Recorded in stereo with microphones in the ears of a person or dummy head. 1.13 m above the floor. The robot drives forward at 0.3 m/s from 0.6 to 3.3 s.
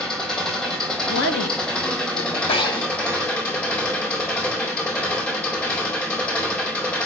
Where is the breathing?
20° left (ahead or behind), 0.8 m.